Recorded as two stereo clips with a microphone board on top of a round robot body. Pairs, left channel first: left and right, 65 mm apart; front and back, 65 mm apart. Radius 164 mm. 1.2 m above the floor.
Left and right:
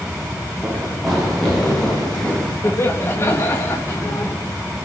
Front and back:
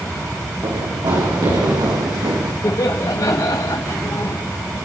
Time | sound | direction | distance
0.6 | running footsteps | 175° right | 7 m
2.6 | laughter | 40° left | 2 m